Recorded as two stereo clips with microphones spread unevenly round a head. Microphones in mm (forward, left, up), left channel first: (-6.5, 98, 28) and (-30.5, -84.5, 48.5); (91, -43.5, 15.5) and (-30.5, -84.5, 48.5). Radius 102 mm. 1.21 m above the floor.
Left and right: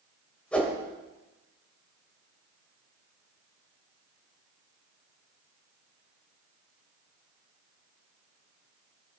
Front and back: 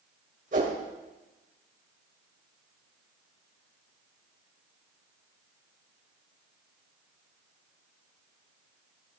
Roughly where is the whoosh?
Behind.